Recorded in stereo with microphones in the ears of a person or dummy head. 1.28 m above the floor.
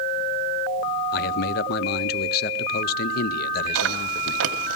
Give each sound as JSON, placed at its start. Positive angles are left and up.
{"t": 1.1, "sound": "a man speaking", "side_deg": 45, "distance_m": 0.6}
{"t": 3.8, "sound": "chewing", "side_deg": -70, "distance_m": 1.4}